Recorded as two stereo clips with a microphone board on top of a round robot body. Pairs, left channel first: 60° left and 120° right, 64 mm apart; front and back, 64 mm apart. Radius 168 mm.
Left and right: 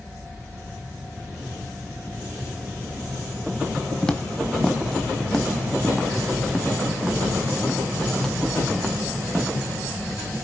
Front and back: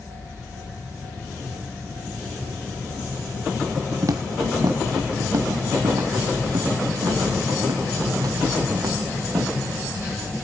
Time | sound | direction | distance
4.0 | footsteps | 140° left | 0.5 m